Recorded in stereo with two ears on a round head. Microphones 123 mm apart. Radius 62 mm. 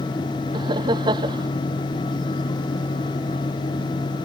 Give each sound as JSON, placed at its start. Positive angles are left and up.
{"t": 0.5, "sound": "laughter", "side_deg": -30}